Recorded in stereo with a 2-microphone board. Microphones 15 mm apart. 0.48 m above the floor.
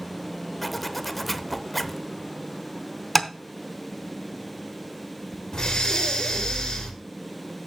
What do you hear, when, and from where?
0.6 s a zipper: 10° left (ahead or behind), 0.6 m
3.1 s tapping: 15° left (ahead or behind), 0.8 m
5.5 s breathing: 50° left (ahead or behind), 2 m